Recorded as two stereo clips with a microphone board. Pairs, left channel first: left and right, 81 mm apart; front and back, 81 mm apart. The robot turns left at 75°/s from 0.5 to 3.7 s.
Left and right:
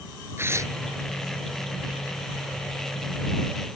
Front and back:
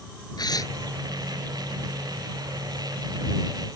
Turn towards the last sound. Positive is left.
turn(degrees=90)